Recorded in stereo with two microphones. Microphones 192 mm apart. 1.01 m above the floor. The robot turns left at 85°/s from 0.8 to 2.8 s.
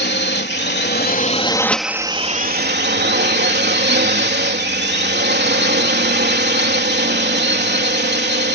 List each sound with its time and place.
0.0 s a drone: 85° left; by 8.6 s 85° right